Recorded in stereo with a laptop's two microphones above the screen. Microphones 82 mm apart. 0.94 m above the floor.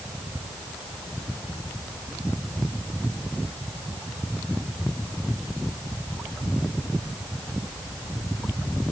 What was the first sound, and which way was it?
Only background noise.